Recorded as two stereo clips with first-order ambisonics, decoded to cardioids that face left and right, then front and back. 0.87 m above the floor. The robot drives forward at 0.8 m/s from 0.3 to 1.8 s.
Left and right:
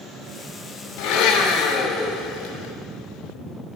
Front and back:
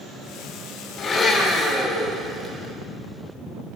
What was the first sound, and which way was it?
A blender, 70° left.